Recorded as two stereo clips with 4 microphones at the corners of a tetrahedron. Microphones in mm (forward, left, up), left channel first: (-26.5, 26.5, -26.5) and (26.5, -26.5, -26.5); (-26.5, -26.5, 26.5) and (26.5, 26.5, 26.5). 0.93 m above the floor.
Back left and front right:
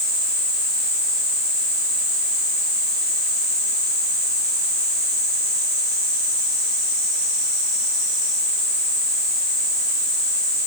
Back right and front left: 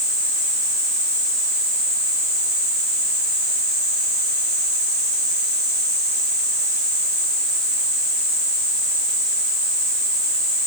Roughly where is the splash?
I don't hear a splash.